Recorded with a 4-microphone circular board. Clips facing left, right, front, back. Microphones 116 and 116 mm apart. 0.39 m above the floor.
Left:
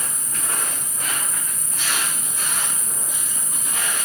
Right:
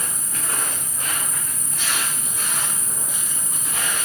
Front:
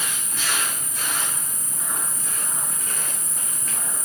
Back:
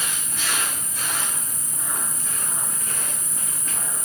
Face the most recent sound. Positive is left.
turn(degrees=-35)